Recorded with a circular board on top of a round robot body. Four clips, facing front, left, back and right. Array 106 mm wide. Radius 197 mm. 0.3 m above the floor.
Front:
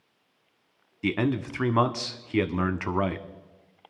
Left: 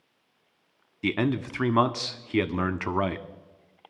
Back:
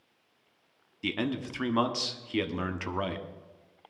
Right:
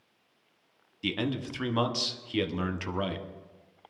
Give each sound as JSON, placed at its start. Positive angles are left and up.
{"t": 1.0, "sound": "a man speaking", "azimuth_deg": 60, "distance_m": 0.9}